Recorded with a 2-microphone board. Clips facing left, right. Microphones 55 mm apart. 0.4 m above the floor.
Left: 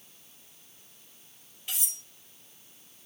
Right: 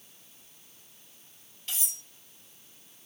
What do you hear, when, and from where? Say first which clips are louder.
1.7 s cutlery clinking: even; 10° left (ahead or behind), 5 m